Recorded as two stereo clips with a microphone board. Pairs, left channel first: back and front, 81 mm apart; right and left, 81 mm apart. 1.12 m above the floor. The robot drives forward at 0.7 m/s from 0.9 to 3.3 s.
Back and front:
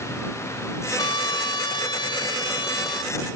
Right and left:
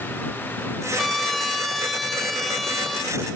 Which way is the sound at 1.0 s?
Straight behind.